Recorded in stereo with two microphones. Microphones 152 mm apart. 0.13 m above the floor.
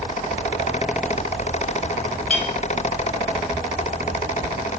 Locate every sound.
2.3 s a clink: 5° left (ahead or behind), 2.5 m